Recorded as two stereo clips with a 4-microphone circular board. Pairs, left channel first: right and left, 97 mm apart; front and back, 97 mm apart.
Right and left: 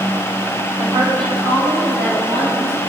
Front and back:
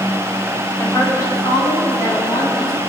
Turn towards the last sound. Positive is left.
turn(degrees=50)